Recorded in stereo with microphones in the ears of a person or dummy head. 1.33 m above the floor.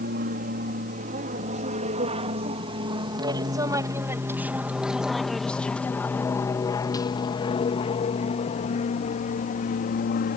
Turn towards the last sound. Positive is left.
turn(degrees=45)  # may be behind; listen again after turning